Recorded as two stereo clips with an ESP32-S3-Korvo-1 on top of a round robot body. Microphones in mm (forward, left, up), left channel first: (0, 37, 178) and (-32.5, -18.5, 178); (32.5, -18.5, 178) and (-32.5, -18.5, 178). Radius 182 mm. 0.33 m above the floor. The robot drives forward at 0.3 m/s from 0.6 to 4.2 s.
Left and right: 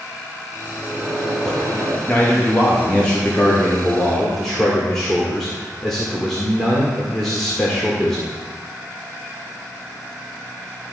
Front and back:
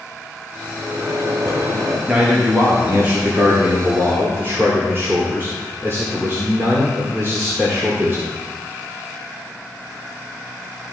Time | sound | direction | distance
0.8 | a microwave | 145° left | 3 m
2.1 | a man speaking | 115° left | 1.6 m